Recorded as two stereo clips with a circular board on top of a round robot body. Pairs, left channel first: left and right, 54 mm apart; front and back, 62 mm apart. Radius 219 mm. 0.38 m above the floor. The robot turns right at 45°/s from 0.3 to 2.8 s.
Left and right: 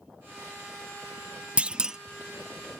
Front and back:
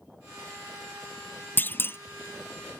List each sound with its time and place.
1.6 s a clunk: 35° right; by 2.0 s 20° right